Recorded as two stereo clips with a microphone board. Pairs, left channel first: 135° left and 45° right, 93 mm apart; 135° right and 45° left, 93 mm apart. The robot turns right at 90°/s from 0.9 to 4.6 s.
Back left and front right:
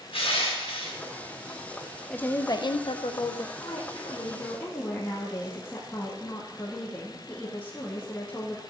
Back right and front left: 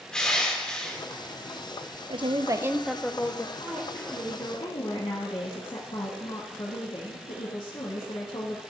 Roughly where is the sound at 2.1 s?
Ahead left.